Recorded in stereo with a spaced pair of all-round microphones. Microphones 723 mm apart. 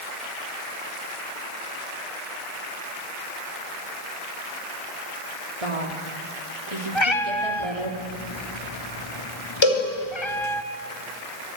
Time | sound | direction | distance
5.6 | a woman speaking | 50° right (ahead or behind) | 3.5 m
7.0 | a cat meowing | 40° left (ahead or behind) | 1.5 m
9.6 | a cowbell | 40° left (ahead or behind) | 6.5 m